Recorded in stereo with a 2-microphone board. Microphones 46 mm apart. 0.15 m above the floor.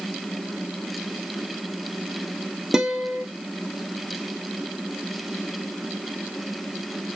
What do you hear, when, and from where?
2.7 s a guitar: 10° right (ahead or behind), 0.9 m